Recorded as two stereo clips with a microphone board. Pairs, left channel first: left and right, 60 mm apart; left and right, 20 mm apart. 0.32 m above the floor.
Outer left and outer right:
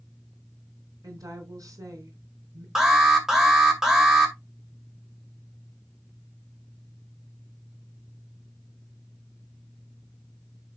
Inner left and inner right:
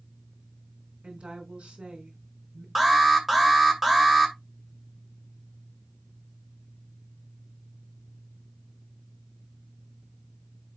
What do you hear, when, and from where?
1.0 s a woman speaking: 70° right (ahead or behind), 4 m
2.8 s an alarm: 5° right (ahead or behind), 2 m